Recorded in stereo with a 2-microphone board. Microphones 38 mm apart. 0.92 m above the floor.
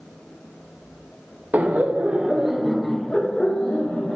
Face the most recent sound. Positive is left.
turn(degrees=45)  # may be behind; listen again after turning